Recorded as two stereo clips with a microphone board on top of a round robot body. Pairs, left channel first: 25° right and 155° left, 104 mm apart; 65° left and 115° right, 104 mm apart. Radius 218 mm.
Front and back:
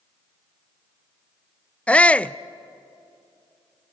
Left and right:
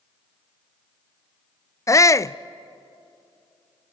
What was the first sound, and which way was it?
A shout, 45° left.